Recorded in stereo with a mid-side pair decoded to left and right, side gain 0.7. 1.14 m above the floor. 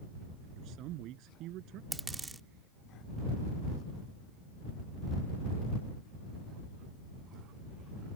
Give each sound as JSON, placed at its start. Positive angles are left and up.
{"t": 0.6, "sound": "a man speaking", "azimuth_deg": -55}
{"t": 1.9, "sound": "a dropped coin", "azimuth_deg": -10}